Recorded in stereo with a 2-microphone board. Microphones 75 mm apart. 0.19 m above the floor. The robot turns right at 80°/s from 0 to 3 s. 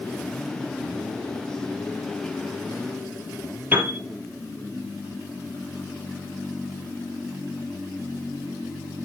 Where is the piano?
25° right (ahead or behind), 3.5 m.